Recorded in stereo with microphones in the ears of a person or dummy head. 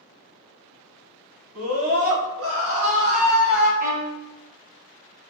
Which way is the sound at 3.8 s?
45° right (ahead or behind).